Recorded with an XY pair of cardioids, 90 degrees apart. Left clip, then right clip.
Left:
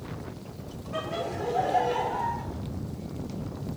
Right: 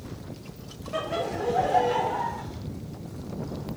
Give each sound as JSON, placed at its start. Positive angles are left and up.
{"t": 0.9, "sound": "laughter", "azimuth_deg": -35, "distance_m": 1.1}